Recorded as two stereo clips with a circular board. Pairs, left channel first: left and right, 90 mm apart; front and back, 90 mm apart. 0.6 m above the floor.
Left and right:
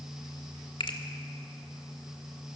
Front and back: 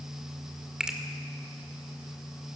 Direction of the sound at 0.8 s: 100° left.